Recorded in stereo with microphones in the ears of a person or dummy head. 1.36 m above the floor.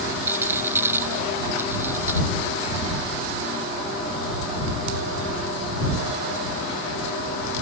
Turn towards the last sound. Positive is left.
turn(degrees=-10)  # may be behind; listen again after turning